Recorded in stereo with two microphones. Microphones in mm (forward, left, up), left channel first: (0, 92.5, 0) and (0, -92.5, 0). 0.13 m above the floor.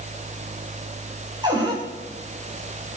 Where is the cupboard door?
20° right (ahead or behind), 5 m.